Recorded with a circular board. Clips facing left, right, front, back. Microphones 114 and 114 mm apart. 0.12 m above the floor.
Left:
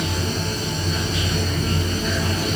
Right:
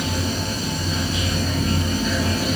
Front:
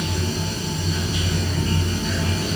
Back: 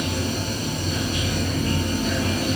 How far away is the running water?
About 1.3 m.